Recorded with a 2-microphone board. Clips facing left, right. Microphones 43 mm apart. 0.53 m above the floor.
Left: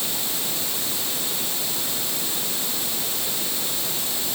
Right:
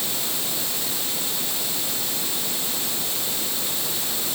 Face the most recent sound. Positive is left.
No sound to turn to.